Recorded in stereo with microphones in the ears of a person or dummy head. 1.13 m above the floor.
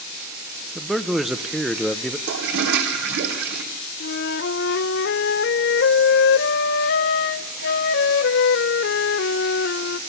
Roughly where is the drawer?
No drawer in this recording.